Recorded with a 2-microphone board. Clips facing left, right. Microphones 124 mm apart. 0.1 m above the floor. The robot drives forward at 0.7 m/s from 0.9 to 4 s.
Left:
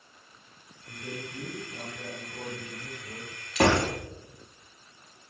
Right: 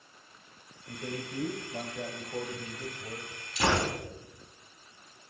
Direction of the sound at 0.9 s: 65° right (ahead or behind).